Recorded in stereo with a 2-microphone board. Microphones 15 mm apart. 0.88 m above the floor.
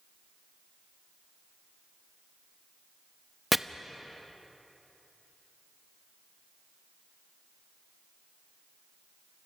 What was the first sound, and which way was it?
Chopping, 5° right (ahead or behind).